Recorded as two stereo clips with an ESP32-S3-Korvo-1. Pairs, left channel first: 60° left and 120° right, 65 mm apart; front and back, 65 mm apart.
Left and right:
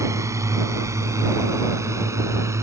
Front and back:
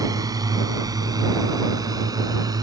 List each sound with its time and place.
0.0 s a drone: 160° right; by 2.6 s 165° right